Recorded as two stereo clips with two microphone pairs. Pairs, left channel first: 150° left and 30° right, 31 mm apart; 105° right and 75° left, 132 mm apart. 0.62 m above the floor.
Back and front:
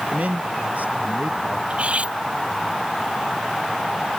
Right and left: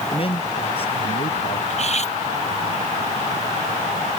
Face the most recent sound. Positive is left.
turn(degrees=-70)